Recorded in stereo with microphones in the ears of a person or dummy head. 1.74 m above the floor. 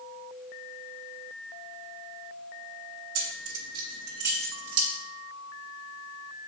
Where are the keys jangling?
70° right (ahead or behind), 2.0 m; by 4.9 s 50° right (ahead or behind), 1.3 m.